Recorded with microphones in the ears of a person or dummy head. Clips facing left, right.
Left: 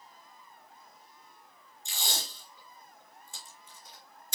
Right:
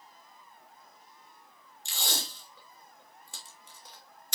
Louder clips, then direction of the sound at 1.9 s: Right 2 dB; 60° right (ahead or behind).